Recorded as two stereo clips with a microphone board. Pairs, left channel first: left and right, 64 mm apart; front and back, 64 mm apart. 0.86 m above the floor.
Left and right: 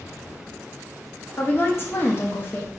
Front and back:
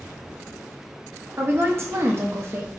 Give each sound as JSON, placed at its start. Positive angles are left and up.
{"t": 1.4, "sound": "a woman speaking", "azimuth_deg": 135, "distance_m": 0.8}